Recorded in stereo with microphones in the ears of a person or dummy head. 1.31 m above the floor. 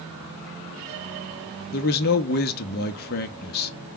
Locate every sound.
1.7 s a man speaking: 55° left (ahead or behind), 0.8 m